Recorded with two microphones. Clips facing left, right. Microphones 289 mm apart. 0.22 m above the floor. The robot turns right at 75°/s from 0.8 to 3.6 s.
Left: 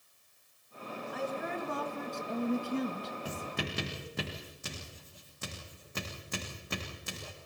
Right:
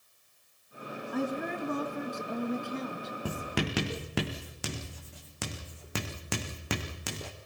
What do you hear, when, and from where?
1.1 s a woman speaking: 85° right, 2.5 m; by 3.1 s 65° left, 2.5 m
3.2 s writing: 60° right (ahead or behind), 3 m; by 7.3 s 85° right, 3 m